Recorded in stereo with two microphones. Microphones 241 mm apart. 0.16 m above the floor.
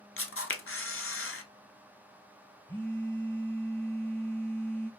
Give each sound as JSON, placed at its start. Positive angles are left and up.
{"t": 0.2, "sound": "a camera shutter", "side_deg": 60, "distance_m": 0.5}
{"t": 2.7, "sound": "a phone buzzing", "side_deg": 10, "distance_m": 1.4}